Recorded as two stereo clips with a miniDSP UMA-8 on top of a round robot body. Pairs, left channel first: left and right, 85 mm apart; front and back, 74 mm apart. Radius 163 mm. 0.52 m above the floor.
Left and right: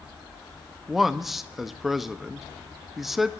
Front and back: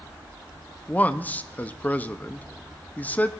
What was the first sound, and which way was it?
A man speaking, 5° right.